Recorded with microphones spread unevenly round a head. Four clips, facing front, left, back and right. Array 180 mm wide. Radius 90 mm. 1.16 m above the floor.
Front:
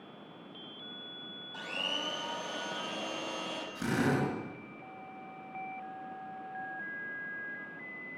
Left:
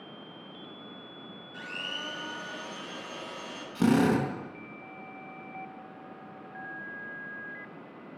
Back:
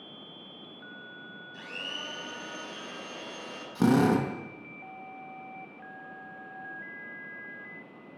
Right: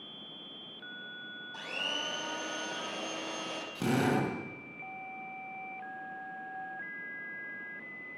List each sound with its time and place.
1.5 s a blender: 45° right, 7 m
3.8 s a drill: 155° left, 5 m